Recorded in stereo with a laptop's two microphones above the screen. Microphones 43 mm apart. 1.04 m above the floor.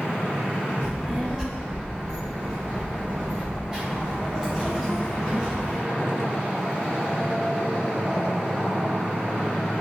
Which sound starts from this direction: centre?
A child speaking, at 0.8 s.